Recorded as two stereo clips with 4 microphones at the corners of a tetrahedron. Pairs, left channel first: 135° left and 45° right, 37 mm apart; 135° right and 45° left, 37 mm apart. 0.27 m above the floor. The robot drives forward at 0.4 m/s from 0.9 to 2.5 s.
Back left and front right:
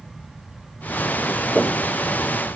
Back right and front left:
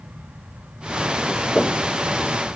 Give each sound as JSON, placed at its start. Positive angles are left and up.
{"t": 1.6, "sound": "knocking", "azimuth_deg": -125, "distance_m": 1.9}